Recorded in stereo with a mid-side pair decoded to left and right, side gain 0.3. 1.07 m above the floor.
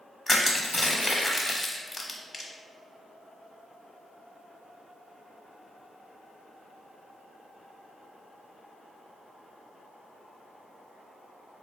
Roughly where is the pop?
I don't hear a pop.